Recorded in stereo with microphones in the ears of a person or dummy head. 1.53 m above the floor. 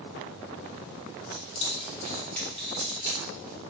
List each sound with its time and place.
1.3 s keys jangling: 55° left (ahead or behind), 1.3 m; by 3.7 s 20° right (ahead or behind), 2.5 m